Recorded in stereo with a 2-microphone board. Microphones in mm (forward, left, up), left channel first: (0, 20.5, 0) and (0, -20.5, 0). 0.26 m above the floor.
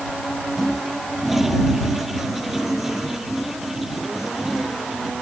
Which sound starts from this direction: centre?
A toilet flushing, at 0.6 s.